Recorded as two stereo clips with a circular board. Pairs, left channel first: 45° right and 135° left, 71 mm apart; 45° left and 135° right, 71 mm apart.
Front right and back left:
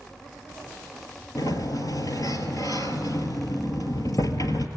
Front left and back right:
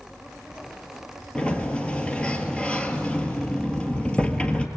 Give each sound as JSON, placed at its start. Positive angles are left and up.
{"t": 1.4, "sound": "a sliding door", "azimuth_deg": -30, "distance_m": 1.3}